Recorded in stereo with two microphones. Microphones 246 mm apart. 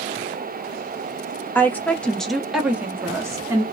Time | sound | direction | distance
1.6 | a woman speaking | 10° left (ahead or behind) | 0.8 m